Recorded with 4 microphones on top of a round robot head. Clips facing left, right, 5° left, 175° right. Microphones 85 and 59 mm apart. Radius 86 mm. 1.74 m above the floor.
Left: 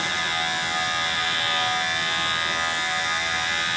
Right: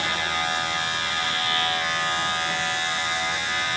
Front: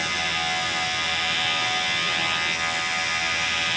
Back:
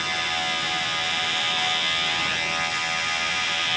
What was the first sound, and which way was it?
Only background noise.